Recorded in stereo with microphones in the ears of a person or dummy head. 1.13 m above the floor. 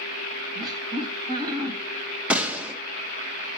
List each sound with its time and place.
0.6 s laughter: 20° right (ahead or behind), 1.0 m
2.3 s a gunshot: 5° right (ahead or behind), 1.1 m